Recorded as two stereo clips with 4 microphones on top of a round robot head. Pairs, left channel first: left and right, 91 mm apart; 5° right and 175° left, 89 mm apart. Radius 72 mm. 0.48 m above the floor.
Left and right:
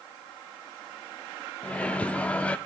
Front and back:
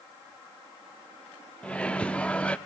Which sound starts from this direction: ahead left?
A microwave, at 1.6 s.